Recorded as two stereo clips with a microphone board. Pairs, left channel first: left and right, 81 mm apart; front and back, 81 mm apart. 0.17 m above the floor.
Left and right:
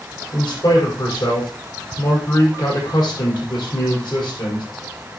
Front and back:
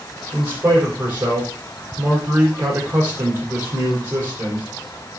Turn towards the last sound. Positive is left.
turn(degrees=120)